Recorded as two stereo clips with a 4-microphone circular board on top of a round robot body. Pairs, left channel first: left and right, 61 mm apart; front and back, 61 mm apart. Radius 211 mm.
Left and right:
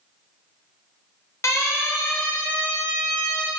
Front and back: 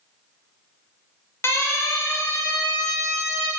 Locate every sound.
1.4 s a siren: 50° left, 3.5 m; by 3.5 s 15° left, 3.5 m